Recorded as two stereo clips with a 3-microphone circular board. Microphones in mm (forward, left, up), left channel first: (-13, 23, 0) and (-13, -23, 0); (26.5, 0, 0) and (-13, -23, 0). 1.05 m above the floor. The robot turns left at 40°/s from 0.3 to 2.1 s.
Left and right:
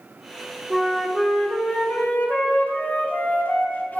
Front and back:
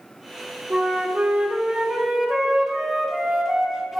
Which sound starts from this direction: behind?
A flute, at 0.7 s.